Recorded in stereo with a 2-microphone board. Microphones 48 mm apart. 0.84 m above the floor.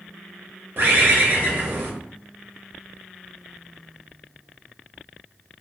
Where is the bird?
50° right (ahead or behind), 0.6 m.